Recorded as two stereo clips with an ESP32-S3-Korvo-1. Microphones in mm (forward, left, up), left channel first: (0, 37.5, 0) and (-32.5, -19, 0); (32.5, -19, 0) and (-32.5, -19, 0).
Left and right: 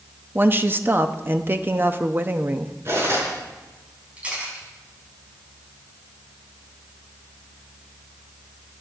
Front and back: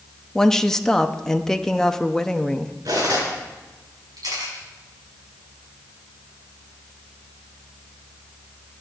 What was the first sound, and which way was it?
A woman speaking, 80° right.